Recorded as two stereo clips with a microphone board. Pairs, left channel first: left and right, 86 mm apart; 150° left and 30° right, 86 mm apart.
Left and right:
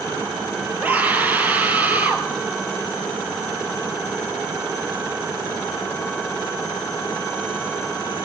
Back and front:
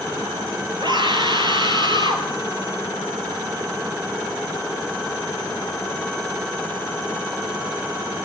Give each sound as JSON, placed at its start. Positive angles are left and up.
{"t": 0.8, "sound": "a scream", "azimuth_deg": -25, "distance_m": 3.5}